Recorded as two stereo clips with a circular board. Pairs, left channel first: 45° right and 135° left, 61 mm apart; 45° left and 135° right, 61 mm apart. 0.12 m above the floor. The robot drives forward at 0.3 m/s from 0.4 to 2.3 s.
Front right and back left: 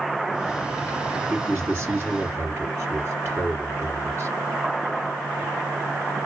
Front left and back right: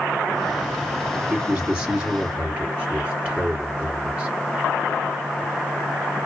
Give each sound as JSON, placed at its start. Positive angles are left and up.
{"t": 1.3, "sound": "a man speaking", "azimuth_deg": 160, "distance_m": 2.5}